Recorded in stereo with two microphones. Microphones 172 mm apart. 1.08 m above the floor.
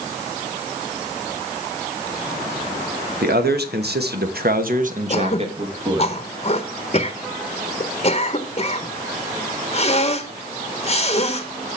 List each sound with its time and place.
3.2 s a man speaking: 70° right (ahead or behind), 1.3 m; by 6.1 s 25° right (ahead or behind), 1.5 m
5.1 s throat clearing: 40° left (ahead or behind), 0.8 m